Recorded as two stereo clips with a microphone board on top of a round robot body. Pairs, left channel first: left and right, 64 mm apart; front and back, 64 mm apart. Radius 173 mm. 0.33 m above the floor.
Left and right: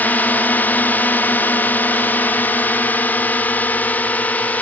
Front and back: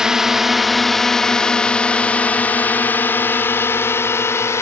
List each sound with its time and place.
0.0 s a drone: 110° left; by 4.6 s 30° left